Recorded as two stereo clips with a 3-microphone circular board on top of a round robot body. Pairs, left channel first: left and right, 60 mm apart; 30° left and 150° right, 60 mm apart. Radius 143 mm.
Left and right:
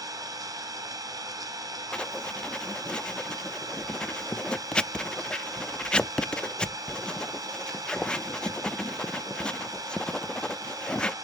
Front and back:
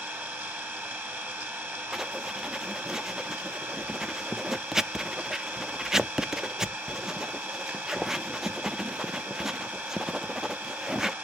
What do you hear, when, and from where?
0.0 s an engine running: 90° right, 1.4 m
1.9 s writing: 140° left, 0.6 m